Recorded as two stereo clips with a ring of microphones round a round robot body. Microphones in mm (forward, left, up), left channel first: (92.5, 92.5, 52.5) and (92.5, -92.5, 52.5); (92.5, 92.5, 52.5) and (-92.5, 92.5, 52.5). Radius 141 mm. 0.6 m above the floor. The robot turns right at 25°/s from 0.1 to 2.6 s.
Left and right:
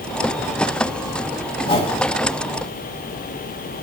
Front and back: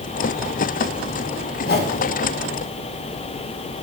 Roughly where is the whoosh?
Ahead left.